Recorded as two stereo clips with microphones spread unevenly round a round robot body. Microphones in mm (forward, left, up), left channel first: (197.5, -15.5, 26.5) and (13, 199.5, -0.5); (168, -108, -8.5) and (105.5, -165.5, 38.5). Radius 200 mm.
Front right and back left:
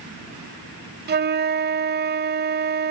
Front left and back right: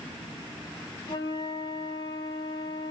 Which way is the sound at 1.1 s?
70° left.